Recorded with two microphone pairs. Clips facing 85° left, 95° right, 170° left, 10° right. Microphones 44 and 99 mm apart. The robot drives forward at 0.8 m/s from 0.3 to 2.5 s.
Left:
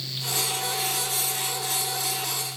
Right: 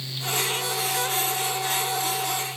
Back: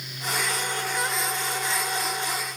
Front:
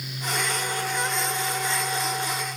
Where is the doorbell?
No doorbell in this recording.